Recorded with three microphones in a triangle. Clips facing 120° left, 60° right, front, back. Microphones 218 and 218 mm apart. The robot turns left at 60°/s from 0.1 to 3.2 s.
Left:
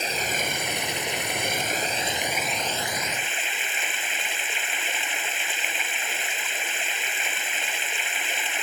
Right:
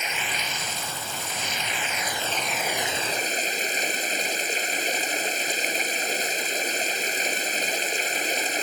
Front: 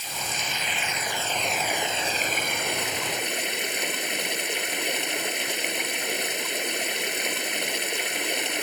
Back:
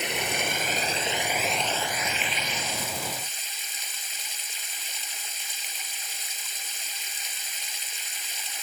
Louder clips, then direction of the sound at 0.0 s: Left 4 dB, back 6 dB; 175° left.